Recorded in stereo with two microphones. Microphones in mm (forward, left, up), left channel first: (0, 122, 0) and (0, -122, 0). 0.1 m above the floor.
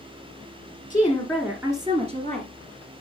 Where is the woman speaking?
20° left (ahead or behind), 1.7 m; by 2.5 s 35° right (ahead or behind), 2 m.